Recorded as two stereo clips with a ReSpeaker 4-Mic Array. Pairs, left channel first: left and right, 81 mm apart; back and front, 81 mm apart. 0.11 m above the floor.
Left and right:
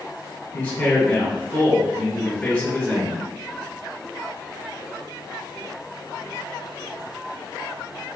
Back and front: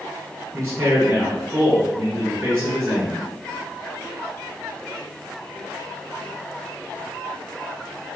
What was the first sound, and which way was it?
A man speaking, 50° left.